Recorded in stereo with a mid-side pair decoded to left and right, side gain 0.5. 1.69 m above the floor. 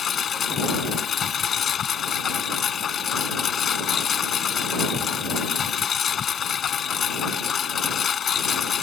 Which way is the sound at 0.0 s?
45° left.